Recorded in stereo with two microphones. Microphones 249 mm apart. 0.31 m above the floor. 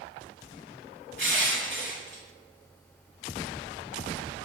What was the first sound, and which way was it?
Crushing, 50° right (ahead or behind).